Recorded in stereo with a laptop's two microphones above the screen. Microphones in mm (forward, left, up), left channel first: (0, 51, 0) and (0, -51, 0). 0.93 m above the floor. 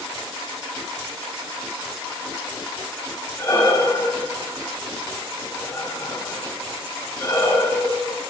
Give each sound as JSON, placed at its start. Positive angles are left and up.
{"t": 3.4, "sound": "breathing", "side_deg": 20, "distance_m": 7.0}